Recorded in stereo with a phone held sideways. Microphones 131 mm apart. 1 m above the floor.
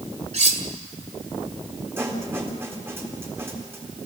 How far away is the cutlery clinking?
About 2 m.